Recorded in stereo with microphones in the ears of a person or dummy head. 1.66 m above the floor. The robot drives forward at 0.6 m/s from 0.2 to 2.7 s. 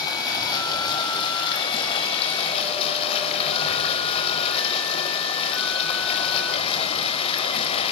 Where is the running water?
30° left (ahead or behind), 5.5 m; by 7.9 s 40° left (ahead or behind), 4 m.